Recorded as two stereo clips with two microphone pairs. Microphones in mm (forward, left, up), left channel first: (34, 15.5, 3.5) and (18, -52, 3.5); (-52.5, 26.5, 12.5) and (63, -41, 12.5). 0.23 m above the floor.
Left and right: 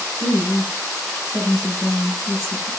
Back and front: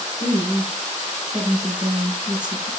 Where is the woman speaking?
40° left, 4 m; by 2.7 s 20° left, 4 m.